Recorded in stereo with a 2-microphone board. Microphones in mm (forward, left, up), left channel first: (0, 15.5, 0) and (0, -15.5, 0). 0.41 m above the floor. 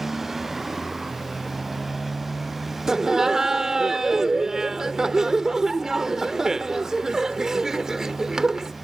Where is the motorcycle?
10° right (ahead or behind); by 8.8 s 5° right (ahead or behind).